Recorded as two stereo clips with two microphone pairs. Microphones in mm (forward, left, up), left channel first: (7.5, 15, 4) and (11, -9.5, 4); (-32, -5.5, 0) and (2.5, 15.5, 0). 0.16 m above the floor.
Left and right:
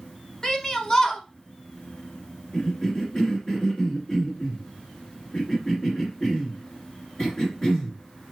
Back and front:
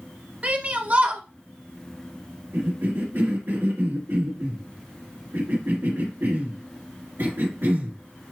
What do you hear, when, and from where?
0.4 s a shout: 45° left, 1.3 m
2.5 s a cough: 35° left, 2.5 m